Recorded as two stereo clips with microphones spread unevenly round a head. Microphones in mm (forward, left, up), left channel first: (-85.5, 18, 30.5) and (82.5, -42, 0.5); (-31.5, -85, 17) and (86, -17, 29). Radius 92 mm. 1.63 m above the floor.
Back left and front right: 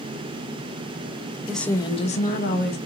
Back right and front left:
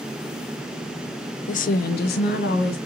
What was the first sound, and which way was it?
A woman speaking, 110° right.